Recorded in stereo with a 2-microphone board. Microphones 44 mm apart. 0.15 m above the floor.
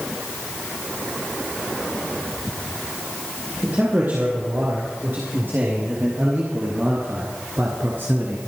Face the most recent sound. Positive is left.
turn(degrees=-45)  # may be behind; listen again after turning